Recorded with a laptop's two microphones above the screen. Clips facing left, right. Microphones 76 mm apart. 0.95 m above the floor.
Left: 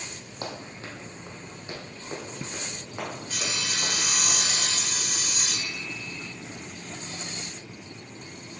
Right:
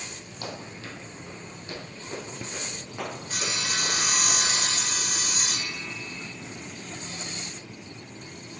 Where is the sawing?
35° right (ahead or behind), 0.6 m.